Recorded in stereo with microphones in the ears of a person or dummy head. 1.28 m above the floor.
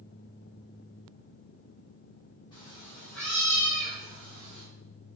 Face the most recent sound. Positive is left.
turn(degrees=-65)  # may be behind; listen again after turning